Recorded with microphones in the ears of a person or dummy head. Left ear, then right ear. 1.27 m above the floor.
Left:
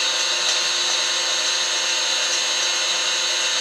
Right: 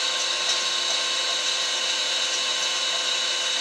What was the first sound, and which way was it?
An engine running, 35° left (ahead or behind).